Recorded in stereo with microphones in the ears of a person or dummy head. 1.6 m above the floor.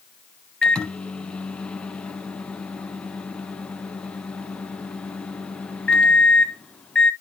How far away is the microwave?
About 0.6 m.